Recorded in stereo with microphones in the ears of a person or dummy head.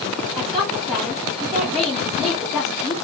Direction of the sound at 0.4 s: Centre (ahead or behind).